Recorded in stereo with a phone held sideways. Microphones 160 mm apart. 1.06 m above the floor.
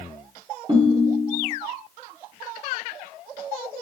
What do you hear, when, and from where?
0.7 s a ringtone: 30° right (ahead or behind), 1.0 m